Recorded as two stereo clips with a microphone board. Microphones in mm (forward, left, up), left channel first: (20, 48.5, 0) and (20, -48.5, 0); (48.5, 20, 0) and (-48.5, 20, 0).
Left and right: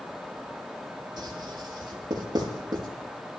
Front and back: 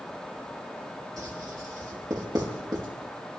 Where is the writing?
130° right, 7.5 m.